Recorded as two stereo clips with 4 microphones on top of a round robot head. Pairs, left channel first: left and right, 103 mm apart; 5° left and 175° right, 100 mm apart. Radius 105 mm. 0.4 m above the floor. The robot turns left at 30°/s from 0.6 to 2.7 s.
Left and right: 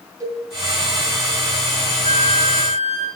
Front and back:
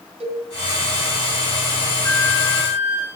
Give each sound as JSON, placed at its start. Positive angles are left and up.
{"t": 0.2, "sound": "a cowbell", "azimuth_deg": -150, "distance_m": 2.5}
{"t": 2.0, "sound": "a flute", "azimuth_deg": -75, "distance_m": 2.5}